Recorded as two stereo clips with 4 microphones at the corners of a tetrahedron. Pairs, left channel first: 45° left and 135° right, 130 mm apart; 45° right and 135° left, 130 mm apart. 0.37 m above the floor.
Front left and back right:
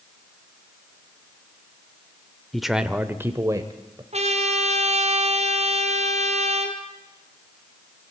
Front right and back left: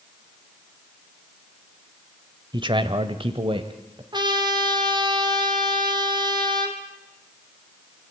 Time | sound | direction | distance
2.5 | a man speaking | 130° left | 1.2 m
4.1 | a trumpet | 170° right | 3.5 m